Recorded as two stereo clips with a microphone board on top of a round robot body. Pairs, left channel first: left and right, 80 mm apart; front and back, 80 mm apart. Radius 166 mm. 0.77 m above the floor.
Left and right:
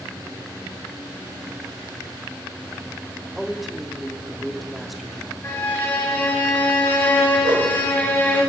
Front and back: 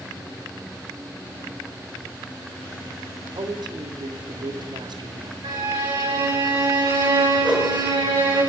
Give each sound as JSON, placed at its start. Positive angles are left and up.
{"t": 3.4, "sound": "a man speaking", "azimuth_deg": 180, "distance_m": 3.0}
{"t": 5.4, "sound": "a violin", "azimuth_deg": 155, "distance_m": 8.5}
{"t": 7.4, "sound": "a whoosh", "azimuth_deg": -105, "distance_m": 5.0}